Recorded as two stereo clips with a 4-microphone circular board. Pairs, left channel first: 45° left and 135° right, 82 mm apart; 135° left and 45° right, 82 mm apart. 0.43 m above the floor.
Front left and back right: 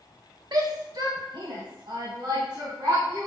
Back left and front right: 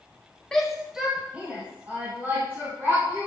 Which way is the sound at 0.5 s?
145° right.